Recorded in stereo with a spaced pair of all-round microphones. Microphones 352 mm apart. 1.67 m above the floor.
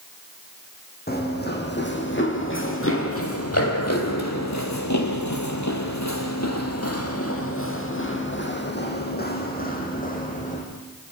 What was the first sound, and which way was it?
Running footsteps, 25° left (ahead or behind).